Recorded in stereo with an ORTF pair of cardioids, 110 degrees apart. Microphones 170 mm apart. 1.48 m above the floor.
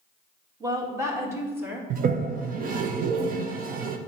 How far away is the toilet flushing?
About 1.0 m.